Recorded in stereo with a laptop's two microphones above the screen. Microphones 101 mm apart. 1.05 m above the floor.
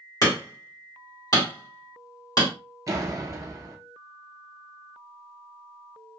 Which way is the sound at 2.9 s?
35° right (ahead or behind).